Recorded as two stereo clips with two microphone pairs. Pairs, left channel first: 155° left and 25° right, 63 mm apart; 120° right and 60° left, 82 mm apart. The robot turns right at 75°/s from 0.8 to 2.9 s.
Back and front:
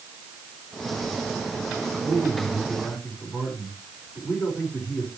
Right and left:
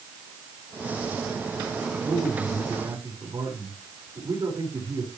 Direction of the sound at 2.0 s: 25° left.